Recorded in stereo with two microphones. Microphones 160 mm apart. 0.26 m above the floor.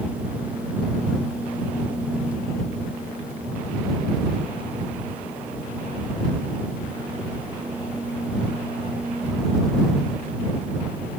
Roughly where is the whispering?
No whispering in this recording.